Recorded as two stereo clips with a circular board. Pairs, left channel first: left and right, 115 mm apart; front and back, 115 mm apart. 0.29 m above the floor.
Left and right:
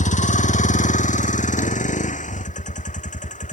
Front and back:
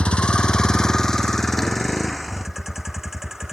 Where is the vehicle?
80° left; by 3.5 s 95° left.